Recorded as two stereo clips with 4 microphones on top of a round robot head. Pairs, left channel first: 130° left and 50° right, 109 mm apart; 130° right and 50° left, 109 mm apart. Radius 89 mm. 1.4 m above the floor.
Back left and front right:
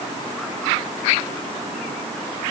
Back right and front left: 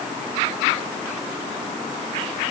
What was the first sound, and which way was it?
Only background noise.